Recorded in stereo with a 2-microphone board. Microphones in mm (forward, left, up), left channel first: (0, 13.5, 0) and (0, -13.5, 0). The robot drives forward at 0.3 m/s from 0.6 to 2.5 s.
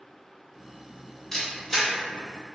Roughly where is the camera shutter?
Centre.